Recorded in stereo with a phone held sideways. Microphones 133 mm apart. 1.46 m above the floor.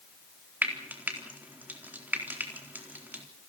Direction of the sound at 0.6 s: 15° right (ahead or behind).